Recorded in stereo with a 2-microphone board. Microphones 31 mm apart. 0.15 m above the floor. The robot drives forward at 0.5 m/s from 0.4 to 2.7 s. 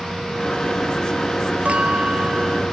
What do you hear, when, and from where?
1.6 s a clink: 40° right (ahead or behind)